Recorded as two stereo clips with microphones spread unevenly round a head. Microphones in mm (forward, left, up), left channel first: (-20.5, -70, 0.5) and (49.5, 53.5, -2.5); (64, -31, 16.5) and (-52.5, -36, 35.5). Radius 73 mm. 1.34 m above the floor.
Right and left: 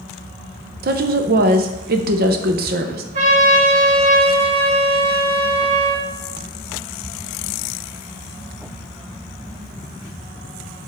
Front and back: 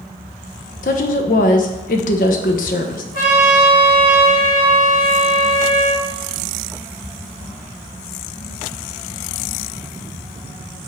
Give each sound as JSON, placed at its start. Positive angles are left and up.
{"t": 0.8, "sound": "a woman speaking", "azimuth_deg": 35, "distance_m": 0.8}
{"t": 3.1, "sound": "a trumpet", "azimuth_deg": 15, "distance_m": 2.0}